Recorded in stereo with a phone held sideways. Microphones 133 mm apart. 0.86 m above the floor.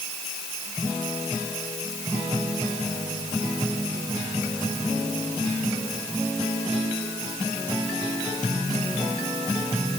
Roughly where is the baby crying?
I don't hear a baby crying.